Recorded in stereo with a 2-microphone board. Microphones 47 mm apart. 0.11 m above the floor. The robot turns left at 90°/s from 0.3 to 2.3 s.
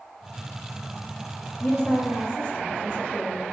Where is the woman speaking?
30° left (ahead or behind), 1.3 m; by 3.4 s 20° left (ahead or behind), 1.3 m.